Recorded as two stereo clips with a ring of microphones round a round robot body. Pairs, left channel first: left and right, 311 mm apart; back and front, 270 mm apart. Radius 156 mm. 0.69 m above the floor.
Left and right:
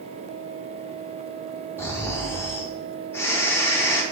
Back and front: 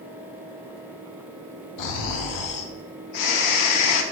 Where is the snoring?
175° left, 0.6 m.